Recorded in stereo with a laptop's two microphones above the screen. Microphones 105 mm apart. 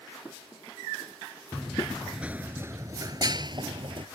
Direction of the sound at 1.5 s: 10° left (ahead or behind).